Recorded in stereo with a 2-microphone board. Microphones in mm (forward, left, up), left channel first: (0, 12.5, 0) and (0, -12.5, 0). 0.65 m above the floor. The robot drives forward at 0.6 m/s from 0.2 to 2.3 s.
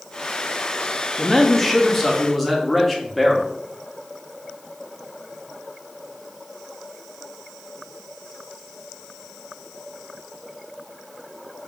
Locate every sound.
1.2 s a man speaking: 10° left (ahead or behind), 0.5 m; by 3.5 s 5° left (ahead or behind), 1.0 m